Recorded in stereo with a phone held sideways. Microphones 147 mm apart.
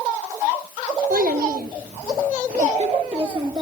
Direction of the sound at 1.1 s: 75° right (ahead or behind).